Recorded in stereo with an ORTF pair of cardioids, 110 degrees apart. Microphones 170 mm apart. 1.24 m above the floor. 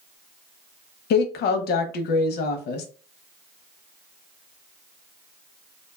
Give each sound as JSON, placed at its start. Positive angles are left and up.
{"t": 1.1, "sound": "a woman speaking", "azimuth_deg": 70, "distance_m": 0.7}